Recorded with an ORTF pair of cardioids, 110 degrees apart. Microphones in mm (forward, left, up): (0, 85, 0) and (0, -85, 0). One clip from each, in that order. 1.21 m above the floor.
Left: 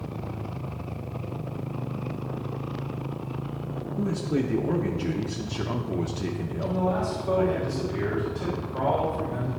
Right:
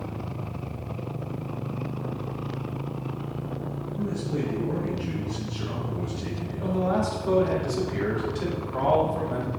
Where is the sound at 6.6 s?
50° right, 2.5 m.